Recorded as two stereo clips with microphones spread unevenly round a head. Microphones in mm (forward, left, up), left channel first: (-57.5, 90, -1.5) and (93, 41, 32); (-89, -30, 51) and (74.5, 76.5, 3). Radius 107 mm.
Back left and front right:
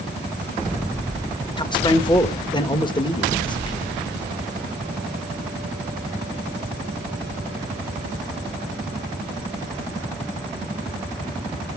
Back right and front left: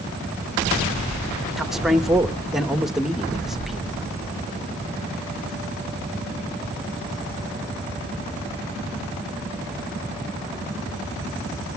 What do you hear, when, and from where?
1.6 s a man speaking: 115° left, 1.6 m